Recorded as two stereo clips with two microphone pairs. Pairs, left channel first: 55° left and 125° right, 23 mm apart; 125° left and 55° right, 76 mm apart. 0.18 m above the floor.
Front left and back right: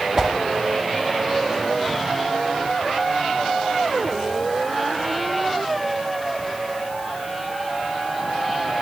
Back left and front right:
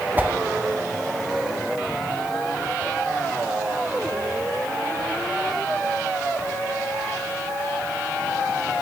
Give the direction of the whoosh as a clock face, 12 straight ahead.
3 o'clock.